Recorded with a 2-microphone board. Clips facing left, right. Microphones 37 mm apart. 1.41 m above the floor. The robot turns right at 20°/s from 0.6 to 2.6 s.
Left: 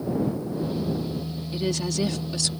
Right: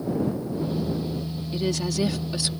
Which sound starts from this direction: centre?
A woman speaking, at 1.5 s.